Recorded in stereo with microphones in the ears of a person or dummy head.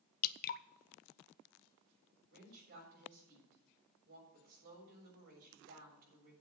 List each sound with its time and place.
0.2 s dripping: 50° left (ahead or behind), 0.6 m
2.3 s a woman speaking: 50° right (ahead or behind), 6.5 m